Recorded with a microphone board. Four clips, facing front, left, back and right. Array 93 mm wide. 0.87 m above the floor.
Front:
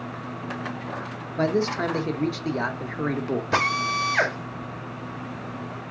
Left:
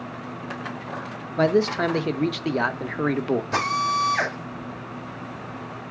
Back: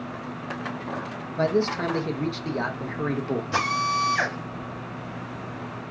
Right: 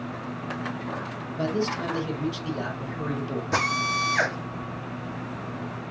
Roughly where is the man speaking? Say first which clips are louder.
Left 7 dB, even; left.